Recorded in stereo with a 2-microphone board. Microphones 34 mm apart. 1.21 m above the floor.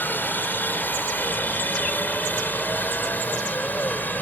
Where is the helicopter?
70° left (ahead or behind); by 4.2 s 60° left (ahead or behind).